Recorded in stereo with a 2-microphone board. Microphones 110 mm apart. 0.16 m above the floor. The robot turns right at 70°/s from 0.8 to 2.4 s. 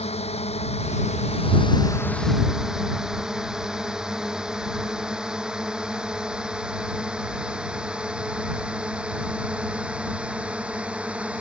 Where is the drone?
70° left (ahead or behind); by 11.4 s 10° right (ahead or behind).